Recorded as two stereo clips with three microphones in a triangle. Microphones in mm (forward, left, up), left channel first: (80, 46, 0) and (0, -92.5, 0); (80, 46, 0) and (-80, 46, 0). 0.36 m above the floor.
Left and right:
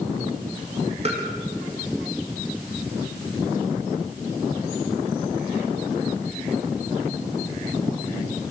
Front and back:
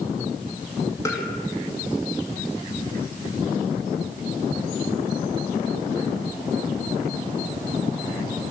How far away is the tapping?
About 5 m.